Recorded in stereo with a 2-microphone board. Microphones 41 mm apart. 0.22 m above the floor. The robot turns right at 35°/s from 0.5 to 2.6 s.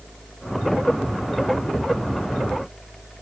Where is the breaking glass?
I don't hear breaking glass.